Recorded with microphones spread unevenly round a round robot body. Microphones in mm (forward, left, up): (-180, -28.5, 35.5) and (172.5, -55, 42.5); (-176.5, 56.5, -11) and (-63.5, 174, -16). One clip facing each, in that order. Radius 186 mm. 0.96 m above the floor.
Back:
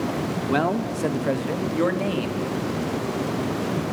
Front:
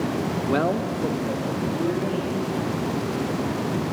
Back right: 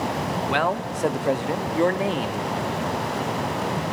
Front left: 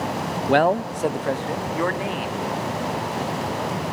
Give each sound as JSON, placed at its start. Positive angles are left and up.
{"t": 0.5, "sound": "a man speaking", "azimuth_deg": 90, "distance_m": 0.6}